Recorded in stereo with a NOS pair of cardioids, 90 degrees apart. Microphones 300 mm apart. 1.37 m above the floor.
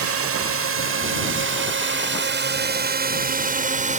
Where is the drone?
50° right; by 4.0 s 25° right.